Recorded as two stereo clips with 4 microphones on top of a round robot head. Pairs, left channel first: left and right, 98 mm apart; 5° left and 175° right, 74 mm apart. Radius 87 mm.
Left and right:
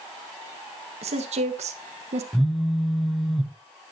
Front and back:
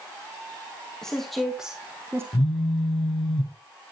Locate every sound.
1.0 s a woman speaking: 80° right, 1.7 m; by 2.2 s 110° right, 1.0 m
2.3 s a phone buzzing: straight ahead, 0.8 m